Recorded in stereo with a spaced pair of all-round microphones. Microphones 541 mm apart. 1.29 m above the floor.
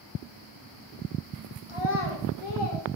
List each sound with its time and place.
1.7 s a child speaking: 65° left (ahead or behind), 0.7 m; by 3.0 s 45° left (ahead or behind), 1.1 m